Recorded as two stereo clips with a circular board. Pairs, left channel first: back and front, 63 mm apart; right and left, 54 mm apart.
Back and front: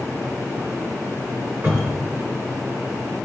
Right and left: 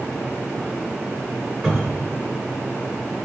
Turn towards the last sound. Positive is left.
turn(degrees=5)